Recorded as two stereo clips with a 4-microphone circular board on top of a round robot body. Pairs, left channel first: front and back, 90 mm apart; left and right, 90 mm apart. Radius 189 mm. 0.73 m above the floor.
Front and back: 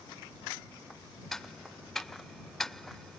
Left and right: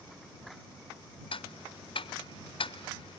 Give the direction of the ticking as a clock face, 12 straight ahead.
9 o'clock.